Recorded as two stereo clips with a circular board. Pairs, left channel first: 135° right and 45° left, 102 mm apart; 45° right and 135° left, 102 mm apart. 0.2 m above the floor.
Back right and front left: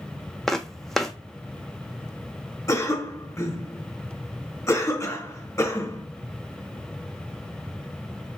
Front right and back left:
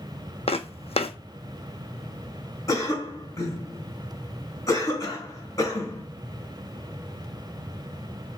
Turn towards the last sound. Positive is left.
turn(degrees=-85)